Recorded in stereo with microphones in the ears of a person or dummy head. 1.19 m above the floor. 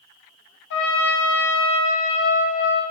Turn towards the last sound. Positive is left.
turn(degrees=50)  # may be behind; listen again after turning